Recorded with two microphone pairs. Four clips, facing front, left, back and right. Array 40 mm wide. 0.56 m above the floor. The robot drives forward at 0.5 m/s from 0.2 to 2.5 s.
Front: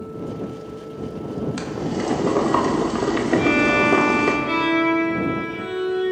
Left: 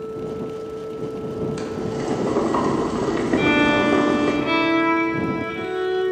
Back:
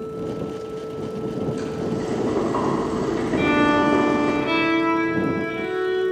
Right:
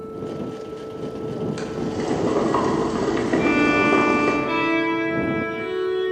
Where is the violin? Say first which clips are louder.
Left 1 dB, back 1 dB; 105° left, 3 m.